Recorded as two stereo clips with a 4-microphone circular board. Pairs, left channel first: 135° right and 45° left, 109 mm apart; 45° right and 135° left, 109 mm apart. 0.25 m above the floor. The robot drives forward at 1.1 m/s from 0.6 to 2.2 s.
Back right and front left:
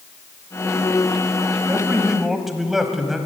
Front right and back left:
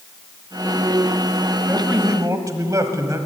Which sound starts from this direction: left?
A man speaking, at 1.7 s.